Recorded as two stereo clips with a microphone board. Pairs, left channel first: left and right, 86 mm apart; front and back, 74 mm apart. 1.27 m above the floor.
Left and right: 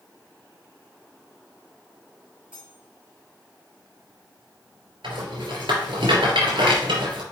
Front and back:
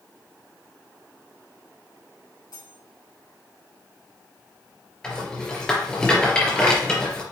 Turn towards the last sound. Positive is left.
turn(degrees=-75)